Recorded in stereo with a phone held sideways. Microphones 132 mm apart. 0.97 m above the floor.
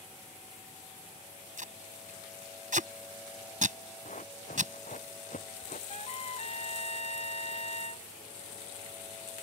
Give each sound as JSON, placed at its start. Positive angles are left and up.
{"t": 1.6, "sound": "tape being pulled", "side_deg": -75}
{"t": 4.0, "sound": "running footsteps", "side_deg": 70}
{"t": 5.9, "sound": "a trumpet", "side_deg": 55}